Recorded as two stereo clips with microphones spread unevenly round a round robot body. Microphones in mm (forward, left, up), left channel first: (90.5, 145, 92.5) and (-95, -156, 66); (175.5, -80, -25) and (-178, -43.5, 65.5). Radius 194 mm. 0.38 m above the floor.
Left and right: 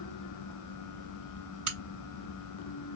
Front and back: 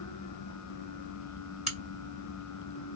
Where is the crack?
85° right, 2 m.